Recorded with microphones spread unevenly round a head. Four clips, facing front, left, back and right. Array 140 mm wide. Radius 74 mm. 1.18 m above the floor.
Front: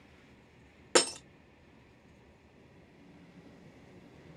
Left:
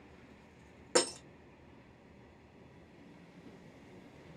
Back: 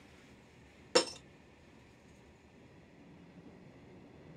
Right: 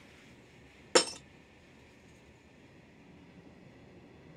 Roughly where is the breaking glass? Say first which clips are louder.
Right 3 dB, front 2 dB; ahead right.